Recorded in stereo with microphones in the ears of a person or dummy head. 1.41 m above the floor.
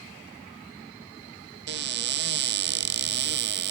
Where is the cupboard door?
55° right (ahead or behind), 0.6 m.